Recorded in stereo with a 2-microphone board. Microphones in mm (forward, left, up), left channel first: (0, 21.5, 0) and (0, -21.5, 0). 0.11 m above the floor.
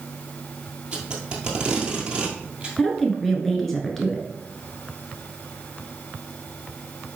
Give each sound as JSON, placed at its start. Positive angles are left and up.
{"t": 0.9, "sound": "tape being pulled", "side_deg": -20, "distance_m": 2.0}
{"t": 2.8, "sound": "a woman speaking", "side_deg": 5, "distance_m": 1.3}